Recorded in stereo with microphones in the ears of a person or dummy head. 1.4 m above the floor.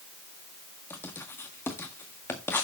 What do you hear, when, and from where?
0.9 s writing: 10° left (ahead or behind), 1.6 m